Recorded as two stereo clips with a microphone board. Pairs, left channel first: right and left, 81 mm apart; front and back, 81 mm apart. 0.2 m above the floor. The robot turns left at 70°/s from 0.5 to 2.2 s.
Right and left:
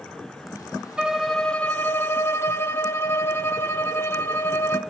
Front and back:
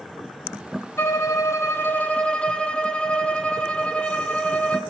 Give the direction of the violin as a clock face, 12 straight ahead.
11 o'clock.